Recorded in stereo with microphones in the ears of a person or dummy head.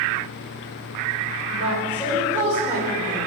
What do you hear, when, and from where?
1.5 s a woman speaking: 35° right (ahead or behind), 2.0 m